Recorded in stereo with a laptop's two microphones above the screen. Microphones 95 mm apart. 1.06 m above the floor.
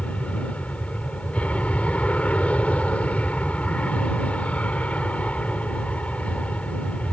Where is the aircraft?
15° left (ahead or behind).